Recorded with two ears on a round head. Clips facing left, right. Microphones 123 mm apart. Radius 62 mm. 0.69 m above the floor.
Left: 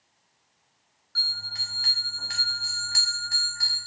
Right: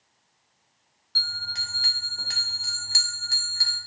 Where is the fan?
No fan in this recording.